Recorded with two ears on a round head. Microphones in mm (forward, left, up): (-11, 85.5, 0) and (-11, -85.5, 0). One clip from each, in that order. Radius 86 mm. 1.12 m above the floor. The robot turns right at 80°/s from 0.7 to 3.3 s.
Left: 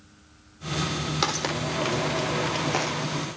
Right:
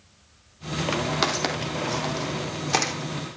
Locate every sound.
1.2 s footsteps: 5° right (ahead or behind), 2.5 m; by 2.9 s 25° right (ahead or behind), 3.5 m